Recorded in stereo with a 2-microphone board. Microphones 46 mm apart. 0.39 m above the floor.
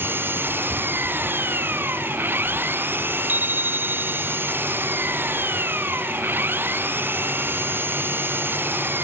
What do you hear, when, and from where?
0.0 s an engine running: 50° right (ahead or behind)
3.3 s a bicycle bell: 45° right (ahead or behind)